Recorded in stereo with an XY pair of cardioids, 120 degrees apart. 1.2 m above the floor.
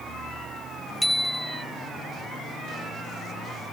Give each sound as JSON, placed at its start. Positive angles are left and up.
{"t": 1.0, "sound": "a bicycle bell", "azimuth_deg": 5}